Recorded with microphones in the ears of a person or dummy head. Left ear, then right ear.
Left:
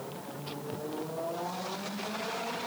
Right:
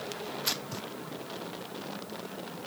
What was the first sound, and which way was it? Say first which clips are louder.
Tearing paper: right 7 dB; 65° right (ahead or behind).